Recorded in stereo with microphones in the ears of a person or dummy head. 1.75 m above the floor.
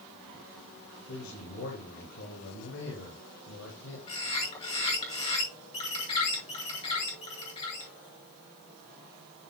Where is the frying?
No frying in this recording.